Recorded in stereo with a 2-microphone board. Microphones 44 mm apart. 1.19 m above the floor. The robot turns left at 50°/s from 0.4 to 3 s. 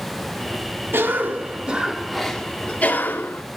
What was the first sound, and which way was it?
A cough, 120° right.